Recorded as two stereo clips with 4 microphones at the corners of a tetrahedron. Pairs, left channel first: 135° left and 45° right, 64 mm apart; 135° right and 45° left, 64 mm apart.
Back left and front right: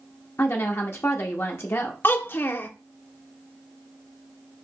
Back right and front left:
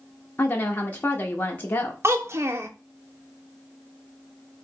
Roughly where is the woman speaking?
Behind.